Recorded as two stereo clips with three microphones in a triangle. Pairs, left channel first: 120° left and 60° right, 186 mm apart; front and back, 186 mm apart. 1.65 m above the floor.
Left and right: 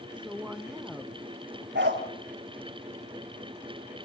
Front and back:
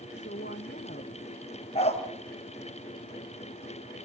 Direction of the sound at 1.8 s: 55° right.